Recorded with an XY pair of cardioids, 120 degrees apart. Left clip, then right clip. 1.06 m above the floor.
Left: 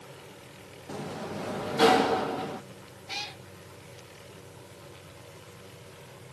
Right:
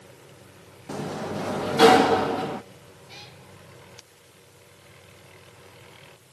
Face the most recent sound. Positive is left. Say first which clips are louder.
# left 9 dB
turn(degrees=50)